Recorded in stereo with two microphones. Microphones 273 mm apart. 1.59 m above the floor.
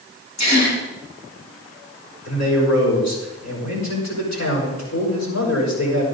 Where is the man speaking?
80° left, 6.5 m.